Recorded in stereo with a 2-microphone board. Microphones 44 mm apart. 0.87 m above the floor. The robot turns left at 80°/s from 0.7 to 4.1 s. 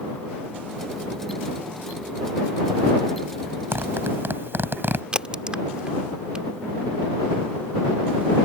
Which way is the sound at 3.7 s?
80° right.